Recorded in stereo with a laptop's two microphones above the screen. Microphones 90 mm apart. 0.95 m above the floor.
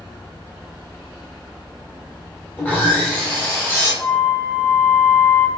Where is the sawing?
20° left (ahead or behind), 1.0 m.